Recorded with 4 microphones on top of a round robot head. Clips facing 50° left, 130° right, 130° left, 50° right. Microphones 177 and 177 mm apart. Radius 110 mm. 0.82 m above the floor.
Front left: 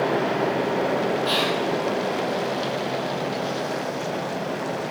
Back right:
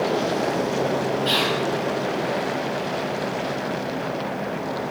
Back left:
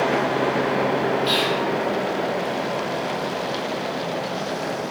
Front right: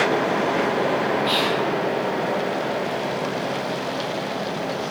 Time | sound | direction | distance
1.2 | whispering | 160° left | 1.9 m